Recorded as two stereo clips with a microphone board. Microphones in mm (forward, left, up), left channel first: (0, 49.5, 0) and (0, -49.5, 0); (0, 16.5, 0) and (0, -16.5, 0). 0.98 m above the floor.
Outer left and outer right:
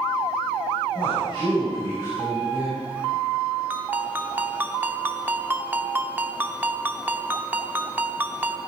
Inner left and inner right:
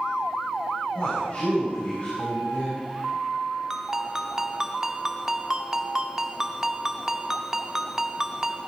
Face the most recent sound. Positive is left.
turn(degrees=-20)  # may be behind; listen again after turning